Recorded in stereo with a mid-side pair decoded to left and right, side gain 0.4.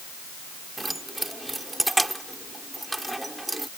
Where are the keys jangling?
15° right.